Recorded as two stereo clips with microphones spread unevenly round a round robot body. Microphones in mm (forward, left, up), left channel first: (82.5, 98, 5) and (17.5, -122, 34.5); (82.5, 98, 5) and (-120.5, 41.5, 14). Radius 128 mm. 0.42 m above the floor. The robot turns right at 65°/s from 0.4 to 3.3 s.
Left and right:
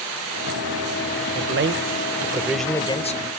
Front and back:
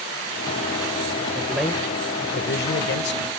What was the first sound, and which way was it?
A man speaking, 90° right.